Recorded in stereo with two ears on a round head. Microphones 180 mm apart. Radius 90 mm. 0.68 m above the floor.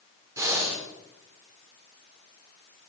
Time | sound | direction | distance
0.4 | breathing | 15° right (ahead or behind) | 2.5 m